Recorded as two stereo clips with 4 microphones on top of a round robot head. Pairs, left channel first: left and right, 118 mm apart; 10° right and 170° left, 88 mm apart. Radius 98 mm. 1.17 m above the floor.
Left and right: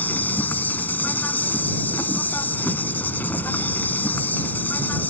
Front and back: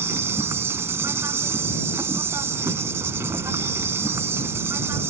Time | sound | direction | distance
0.0 | an insect | 150° left | ?